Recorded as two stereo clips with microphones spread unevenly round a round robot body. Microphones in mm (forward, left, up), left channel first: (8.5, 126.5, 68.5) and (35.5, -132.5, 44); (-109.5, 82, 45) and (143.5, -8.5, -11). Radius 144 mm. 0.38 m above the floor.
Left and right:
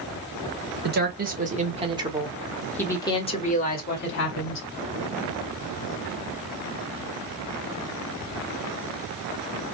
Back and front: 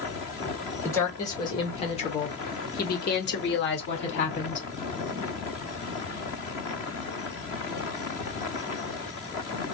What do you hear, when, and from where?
0.8 s a woman speaking: 110° right, 1.8 m; by 4.7 s 110° left, 1.8 m